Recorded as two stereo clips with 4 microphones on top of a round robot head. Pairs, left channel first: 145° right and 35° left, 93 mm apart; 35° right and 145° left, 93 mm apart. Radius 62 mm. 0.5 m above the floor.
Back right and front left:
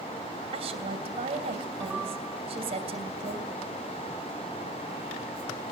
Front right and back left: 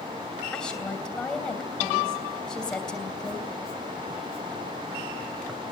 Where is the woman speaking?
50° left, 2.5 m.